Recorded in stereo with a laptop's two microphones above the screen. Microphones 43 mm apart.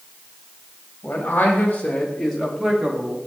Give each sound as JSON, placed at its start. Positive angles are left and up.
{"t": 1.0, "sound": "a man speaking", "side_deg": 45, "distance_m": 1.7}